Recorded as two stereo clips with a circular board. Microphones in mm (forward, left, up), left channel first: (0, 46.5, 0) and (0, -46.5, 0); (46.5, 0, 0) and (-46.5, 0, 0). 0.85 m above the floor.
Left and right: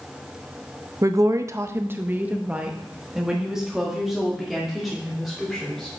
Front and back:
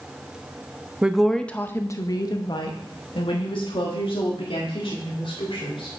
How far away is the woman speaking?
About 0.6 m.